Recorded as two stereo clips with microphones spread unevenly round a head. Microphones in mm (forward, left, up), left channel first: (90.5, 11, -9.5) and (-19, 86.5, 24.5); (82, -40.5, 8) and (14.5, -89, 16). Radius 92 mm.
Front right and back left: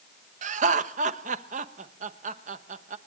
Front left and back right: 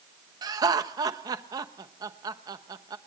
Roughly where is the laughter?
Behind.